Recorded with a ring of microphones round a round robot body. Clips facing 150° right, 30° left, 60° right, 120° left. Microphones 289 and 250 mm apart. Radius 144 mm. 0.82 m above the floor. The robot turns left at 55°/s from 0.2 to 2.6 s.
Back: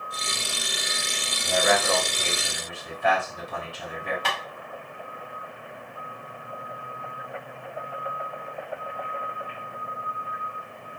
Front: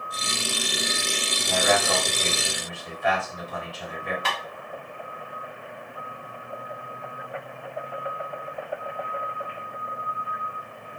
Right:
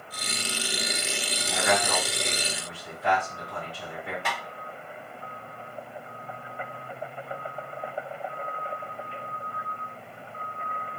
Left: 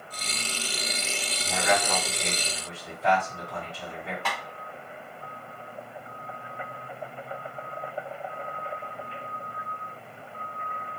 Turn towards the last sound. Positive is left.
turn(degrees=-140)